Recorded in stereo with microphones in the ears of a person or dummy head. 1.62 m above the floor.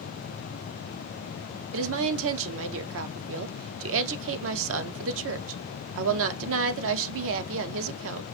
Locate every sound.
1.7 s a woman speaking: 70° right (ahead or behind), 0.6 m